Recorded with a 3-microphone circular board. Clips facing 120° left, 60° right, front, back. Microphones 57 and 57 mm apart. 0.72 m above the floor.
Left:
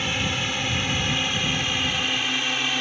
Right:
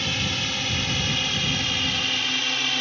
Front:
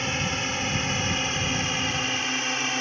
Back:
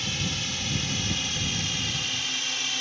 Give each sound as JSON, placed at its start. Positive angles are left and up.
{"t": 0.0, "sound": "a drone", "azimuth_deg": 45}